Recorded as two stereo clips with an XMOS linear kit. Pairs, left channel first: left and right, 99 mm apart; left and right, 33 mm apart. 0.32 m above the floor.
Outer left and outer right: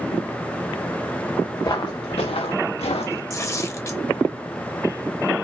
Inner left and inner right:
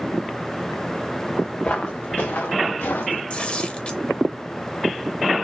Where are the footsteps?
40° left (ahead or behind), 1.2 m; by 3.2 s 80° left, 2.0 m.